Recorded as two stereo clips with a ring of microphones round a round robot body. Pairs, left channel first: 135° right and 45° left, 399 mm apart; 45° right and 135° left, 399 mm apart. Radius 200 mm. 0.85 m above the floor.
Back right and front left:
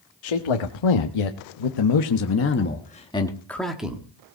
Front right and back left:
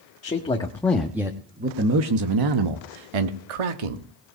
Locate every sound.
0.2 s a man speaking: 120° right, 1.5 m; by 4.1 s 130° left, 1.7 m